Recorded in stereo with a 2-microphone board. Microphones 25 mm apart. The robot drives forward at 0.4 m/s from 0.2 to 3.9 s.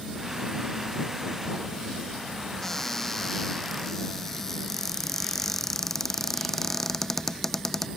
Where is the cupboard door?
15° left (ahead or behind).